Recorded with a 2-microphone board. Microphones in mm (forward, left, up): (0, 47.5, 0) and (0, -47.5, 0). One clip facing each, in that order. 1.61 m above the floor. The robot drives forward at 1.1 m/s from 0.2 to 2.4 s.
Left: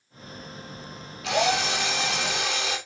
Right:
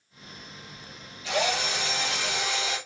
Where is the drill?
75° left (ahead or behind), 3.5 m.